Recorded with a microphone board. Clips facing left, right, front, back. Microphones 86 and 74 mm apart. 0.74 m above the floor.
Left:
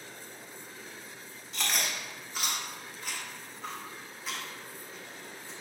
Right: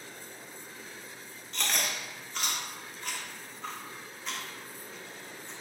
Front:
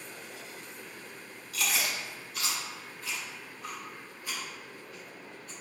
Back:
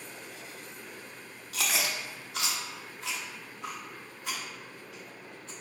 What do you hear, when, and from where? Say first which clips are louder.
1.5 s chewing: even, back 1 dB; 175° left, 0.8 m